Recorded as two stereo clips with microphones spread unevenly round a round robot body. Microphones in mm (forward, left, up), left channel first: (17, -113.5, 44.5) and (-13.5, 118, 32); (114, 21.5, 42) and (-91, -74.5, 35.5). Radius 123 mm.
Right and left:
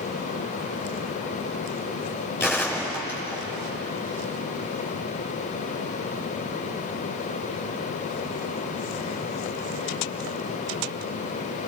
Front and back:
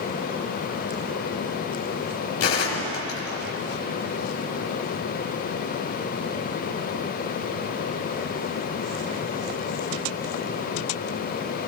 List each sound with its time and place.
2.4 s a gunshot: straight ahead, 4.5 m